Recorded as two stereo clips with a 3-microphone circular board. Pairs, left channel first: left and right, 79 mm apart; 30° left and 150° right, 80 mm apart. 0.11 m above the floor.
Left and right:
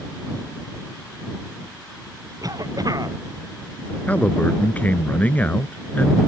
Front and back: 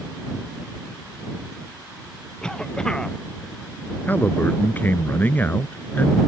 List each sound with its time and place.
2.4 s a cough: 50° right
4.1 s a man speaking: 50° left